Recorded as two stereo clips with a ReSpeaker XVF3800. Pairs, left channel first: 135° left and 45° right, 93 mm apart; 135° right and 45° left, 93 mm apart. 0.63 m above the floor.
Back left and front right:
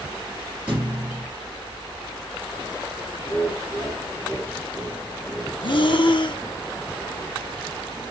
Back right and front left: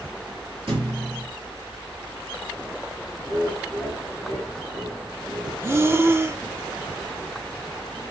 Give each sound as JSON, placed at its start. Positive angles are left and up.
{"t": 0.7, "sound": "a thud", "azimuth_deg": 30, "distance_m": 4.0}
{"t": 3.2, "sound": "laughter", "azimuth_deg": 50, "distance_m": 4.5}
{"t": 5.6, "sound": "breathing", "azimuth_deg": 105, "distance_m": 0.6}